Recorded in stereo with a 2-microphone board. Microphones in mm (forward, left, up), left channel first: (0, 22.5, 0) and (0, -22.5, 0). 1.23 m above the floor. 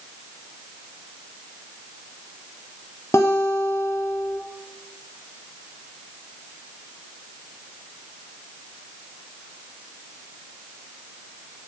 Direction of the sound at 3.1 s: 70° left (ahead or behind).